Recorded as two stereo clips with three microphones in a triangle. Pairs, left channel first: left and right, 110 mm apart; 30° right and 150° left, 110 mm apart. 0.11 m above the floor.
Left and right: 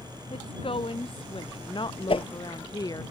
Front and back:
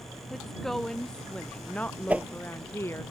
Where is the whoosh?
75° left.